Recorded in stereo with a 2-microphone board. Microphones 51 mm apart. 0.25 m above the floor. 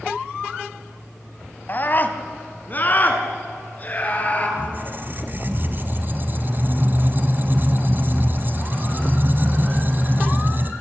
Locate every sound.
1.7 s a scream: 40° left (ahead or behind), 1.4 m; by 4.5 s 30° left (ahead or behind), 4 m
4.6 s a squeak: 40° right (ahead or behind), 1.2 m